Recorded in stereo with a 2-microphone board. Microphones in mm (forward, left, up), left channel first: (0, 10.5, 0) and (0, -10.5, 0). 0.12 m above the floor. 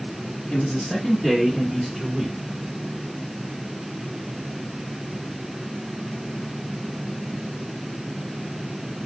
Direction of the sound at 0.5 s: 35° left (ahead or behind).